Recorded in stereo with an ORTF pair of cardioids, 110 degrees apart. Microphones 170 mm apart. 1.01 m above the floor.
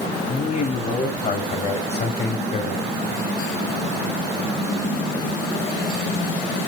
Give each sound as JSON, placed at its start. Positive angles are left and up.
{"t": 0.3, "sound": "a man speaking", "azimuth_deg": 45, "distance_m": 7.0}